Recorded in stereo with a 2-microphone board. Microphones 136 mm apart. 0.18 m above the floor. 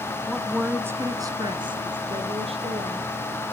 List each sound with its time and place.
0.3 s a woman speaking: 5° left (ahead or behind), 1.7 m; by 3.0 s 50° right (ahead or behind), 4 m